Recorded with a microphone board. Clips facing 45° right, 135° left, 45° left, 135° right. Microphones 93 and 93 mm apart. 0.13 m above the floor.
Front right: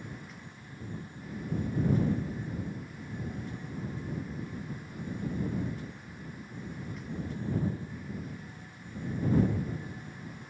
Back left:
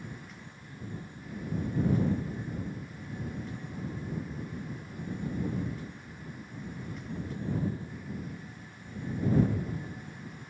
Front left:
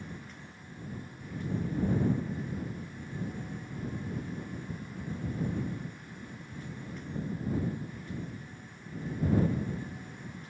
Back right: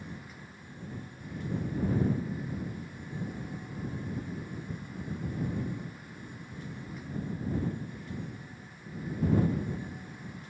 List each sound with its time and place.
Only background noise.